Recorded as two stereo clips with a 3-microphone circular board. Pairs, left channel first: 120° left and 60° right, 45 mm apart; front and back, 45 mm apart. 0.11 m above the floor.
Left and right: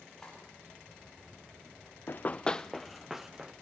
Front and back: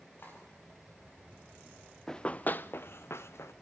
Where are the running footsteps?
80° left, 0.8 m; by 3.5 s 20° left, 2.0 m.